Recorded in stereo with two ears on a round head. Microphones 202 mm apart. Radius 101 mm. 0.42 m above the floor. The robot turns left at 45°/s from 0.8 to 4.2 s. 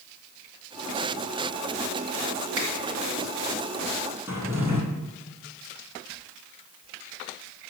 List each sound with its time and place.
2.5 s a finger snap: 80° right, 4.5 m
4.3 s a drawer: 10° right (ahead or behind), 3 m